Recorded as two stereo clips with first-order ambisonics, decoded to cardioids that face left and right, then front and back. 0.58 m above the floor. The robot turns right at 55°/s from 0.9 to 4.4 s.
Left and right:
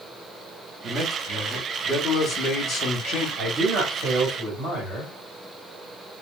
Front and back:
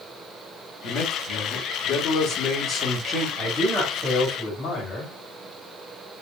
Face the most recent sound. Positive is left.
turn(degrees=-45)